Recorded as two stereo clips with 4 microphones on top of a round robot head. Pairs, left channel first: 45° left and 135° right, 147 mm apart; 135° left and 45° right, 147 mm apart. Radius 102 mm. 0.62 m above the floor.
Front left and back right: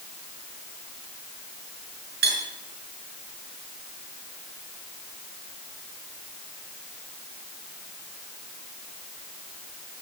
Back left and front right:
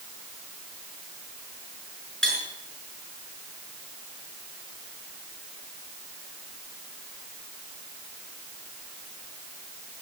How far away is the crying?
I don't hear crying.